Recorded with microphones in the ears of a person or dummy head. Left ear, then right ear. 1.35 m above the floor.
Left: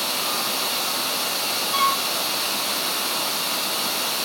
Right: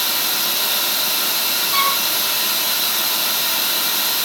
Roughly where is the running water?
Right.